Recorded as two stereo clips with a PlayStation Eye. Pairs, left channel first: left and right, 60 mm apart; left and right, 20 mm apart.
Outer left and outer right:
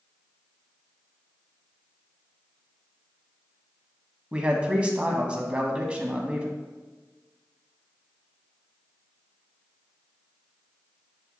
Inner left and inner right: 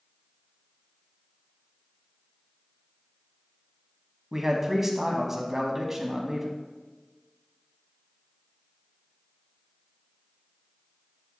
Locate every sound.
4.3 s a man speaking: 20° right (ahead or behind), 1.0 m